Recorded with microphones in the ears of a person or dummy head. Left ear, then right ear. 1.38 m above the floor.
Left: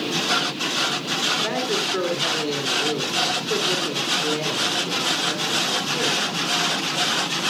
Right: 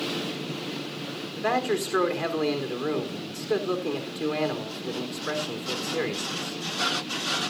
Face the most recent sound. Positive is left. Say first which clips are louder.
# left 3 dB
turn(degrees=-35)  # may be behind; listen again after turning